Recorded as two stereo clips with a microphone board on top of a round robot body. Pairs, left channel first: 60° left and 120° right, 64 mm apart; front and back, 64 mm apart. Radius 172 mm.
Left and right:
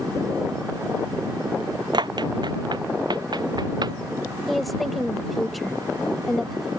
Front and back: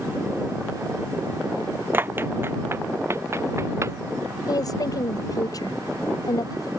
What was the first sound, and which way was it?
Running footsteps, 120° right.